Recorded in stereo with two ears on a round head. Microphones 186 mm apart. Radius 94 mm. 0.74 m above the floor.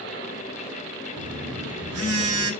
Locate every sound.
1.2 s a phone buzzing: 85° right, 1.4 m